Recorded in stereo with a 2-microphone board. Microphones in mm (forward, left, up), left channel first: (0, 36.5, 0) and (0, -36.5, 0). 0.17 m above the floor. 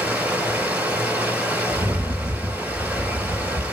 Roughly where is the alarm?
No alarm in this recording.